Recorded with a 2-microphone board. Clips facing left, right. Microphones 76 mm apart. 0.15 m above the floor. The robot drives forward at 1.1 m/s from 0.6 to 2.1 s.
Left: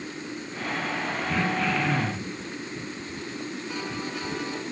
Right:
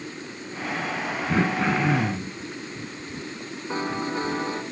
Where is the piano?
35° right (ahead or behind), 1.4 m.